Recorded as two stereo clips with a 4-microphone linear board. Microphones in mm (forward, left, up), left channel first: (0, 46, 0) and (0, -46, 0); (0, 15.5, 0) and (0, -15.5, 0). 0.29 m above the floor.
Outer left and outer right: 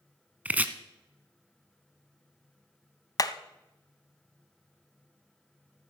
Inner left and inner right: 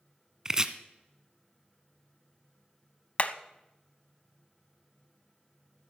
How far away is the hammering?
About 0.8 m.